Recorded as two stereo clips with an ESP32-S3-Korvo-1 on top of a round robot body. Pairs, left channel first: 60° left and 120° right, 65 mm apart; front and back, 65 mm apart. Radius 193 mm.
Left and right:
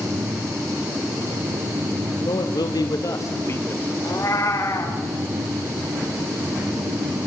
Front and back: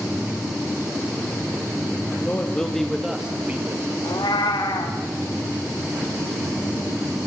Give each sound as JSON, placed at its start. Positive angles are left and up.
{"t": 2.2, "sound": "a man speaking", "azimuth_deg": 65, "distance_m": 1.6}
{"t": 4.0, "sound": "a cat meowing", "azimuth_deg": 15, "distance_m": 1.7}